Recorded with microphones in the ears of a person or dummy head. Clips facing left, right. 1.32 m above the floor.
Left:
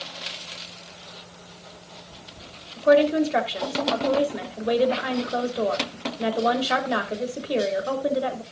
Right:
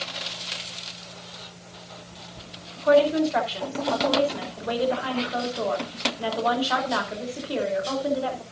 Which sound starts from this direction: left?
A woman speaking, at 2.8 s.